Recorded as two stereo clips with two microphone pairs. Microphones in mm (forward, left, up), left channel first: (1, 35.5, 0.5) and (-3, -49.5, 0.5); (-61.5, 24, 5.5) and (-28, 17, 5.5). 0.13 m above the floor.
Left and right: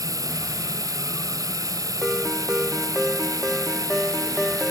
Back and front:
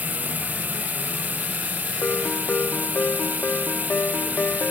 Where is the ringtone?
Straight behind.